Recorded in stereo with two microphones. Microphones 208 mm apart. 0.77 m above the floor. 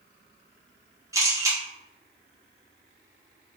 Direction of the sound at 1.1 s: 15° right (ahead or behind).